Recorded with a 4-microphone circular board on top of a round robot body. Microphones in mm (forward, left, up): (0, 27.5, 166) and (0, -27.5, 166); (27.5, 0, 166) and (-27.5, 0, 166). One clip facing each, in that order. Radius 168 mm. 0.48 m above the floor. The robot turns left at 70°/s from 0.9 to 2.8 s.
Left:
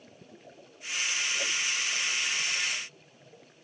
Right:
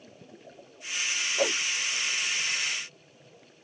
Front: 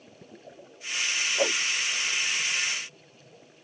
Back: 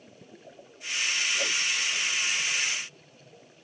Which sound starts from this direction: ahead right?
A whoosh, at 1.4 s.